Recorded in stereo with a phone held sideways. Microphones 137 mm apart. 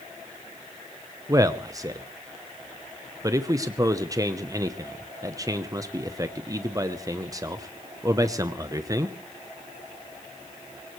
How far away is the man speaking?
About 0.8 m.